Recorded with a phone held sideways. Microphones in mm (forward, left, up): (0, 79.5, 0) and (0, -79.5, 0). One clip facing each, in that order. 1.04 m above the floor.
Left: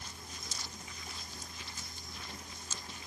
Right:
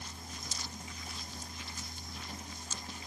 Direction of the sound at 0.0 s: 30° right (ahead or behind).